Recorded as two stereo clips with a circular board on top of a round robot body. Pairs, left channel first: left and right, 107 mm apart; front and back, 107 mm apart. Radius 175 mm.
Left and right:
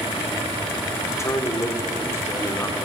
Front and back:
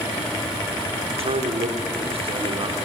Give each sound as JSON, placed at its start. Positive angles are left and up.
{"t": 1.1, "sound": "a man speaking", "azimuth_deg": 155, "distance_m": 2.5}